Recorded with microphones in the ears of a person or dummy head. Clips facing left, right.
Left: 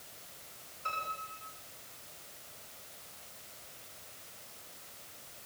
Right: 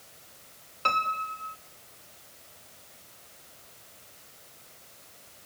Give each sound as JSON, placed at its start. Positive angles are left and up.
{"t": 0.8, "sound": "a piano", "side_deg": -85, "distance_m": 3.5}